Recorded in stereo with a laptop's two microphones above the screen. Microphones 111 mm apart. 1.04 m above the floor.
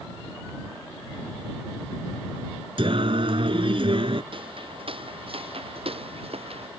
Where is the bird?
I don't hear a bird.